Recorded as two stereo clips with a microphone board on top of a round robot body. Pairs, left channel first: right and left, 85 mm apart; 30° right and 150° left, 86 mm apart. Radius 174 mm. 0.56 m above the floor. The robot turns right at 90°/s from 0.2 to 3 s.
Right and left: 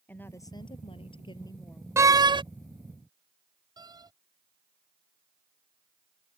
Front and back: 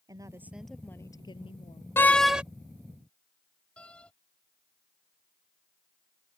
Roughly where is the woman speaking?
Behind.